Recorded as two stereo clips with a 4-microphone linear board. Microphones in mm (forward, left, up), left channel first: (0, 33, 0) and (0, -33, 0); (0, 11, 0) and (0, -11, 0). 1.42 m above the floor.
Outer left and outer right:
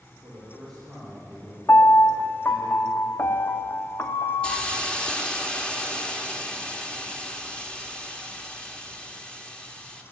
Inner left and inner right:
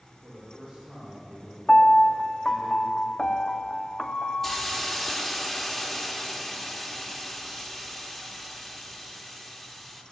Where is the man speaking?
Centre (ahead or behind), 4.5 m; by 2.7 s 40° left (ahead or behind), 6 m.